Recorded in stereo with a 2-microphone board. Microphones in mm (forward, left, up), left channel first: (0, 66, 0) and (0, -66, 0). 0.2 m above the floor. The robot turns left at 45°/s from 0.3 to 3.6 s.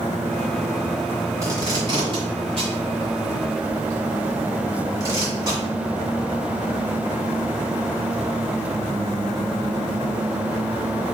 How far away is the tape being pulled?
About 1.8 m.